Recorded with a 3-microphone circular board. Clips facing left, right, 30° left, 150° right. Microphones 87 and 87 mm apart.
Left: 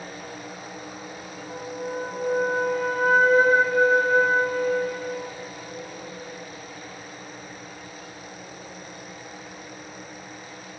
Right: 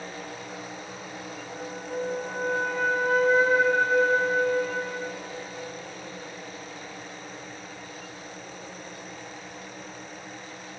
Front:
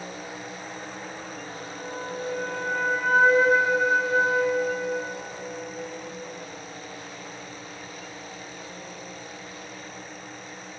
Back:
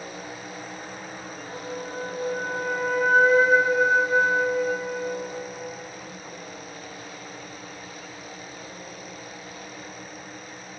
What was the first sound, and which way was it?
A flute, 125° left.